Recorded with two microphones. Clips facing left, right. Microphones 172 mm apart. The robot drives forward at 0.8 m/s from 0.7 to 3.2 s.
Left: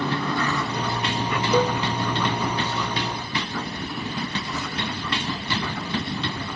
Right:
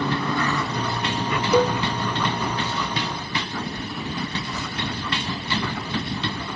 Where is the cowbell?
10° right (ahead or behind), 0.7 m.